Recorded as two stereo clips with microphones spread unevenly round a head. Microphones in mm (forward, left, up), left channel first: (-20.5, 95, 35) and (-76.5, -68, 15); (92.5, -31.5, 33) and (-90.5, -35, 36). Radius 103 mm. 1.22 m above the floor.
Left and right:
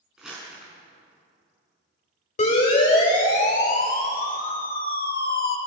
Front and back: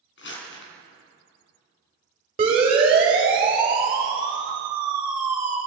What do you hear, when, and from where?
0.2 s crumpling: 20° right, 4.5 m
2.4 s a siren: 115° left, 5.5 m; by 5.6 s 105° left, 3 m